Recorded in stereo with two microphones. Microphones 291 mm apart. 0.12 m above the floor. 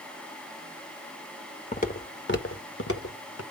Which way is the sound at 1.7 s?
25° left (ahead or behind).